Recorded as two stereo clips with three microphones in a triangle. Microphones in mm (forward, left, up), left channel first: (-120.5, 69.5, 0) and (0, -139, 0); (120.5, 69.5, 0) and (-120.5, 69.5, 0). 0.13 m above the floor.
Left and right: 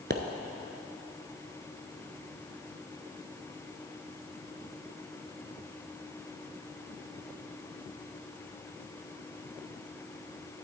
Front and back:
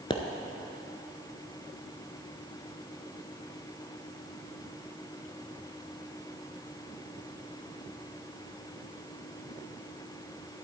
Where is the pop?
60° right, 0.8 m.